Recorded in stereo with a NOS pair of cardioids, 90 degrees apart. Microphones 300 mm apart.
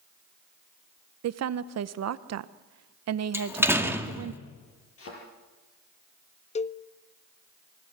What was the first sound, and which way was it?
A woman speaking, 60° right.